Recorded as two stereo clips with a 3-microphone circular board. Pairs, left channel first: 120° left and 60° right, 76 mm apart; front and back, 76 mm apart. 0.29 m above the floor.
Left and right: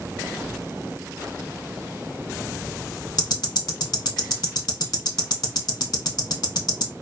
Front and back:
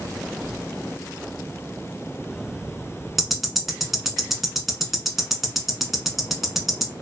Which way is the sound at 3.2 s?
90° left.